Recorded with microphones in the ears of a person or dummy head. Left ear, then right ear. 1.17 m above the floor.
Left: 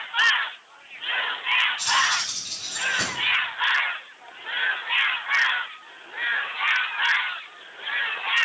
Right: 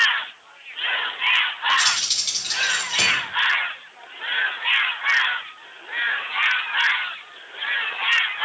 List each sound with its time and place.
1.8 s keys jangling: 50° right (ahead or behind), 4 m